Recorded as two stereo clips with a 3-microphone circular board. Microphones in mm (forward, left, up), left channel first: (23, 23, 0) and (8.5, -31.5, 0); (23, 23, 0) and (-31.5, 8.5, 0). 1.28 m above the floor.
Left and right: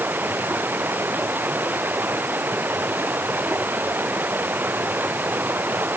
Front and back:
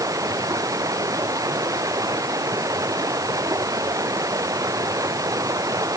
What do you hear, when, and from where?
0.0 s running water: 160° right